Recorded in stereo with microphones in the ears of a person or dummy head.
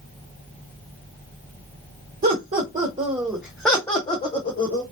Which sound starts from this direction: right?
Laughter, at 2.2 s.